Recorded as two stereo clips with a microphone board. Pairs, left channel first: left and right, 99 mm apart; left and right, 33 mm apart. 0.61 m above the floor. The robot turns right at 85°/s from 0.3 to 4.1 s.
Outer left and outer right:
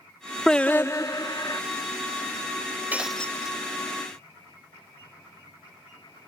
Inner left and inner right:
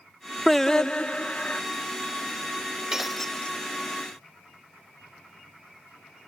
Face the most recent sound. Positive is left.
turn(degrees=85)